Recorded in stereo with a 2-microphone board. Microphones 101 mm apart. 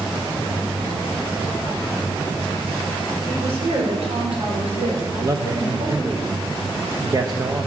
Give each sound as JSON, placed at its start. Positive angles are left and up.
{"t": 3.3, "sound": "a woman speaking", "side_deg": -85, "distance_m": 6.0}
{"t": 5.2, "sound": "a man speaking", "side_deg": -40, "distance_m": 1.2}